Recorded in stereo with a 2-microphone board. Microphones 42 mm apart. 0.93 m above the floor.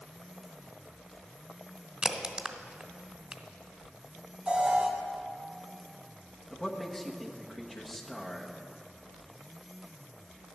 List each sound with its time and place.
2.0 s a crack: 20° right (ahead or behind), 0.9 m
4.5 s an alarm: 30° right (ahead or behind), 1.6 m
6.5 s a man speaking: 10° left (ahead or behind), 1.3 m